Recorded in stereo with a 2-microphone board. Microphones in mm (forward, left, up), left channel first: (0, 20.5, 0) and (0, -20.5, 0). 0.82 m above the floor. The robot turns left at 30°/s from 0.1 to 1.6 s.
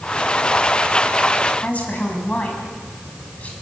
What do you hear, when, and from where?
1.6 s a woman speaking: 35° left (ahead or behind), 6 m